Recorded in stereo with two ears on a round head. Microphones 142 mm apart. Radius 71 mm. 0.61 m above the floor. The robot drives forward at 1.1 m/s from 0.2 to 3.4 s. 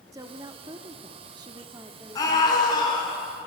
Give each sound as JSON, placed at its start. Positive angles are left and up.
{"t": 0.1, "sound": "a woman speaking", "side_deg": -20, "distance_m": 1.3}
{"t": 2.1, "sound": "a scream", "side_deg": 25, "distance_m": 6.5}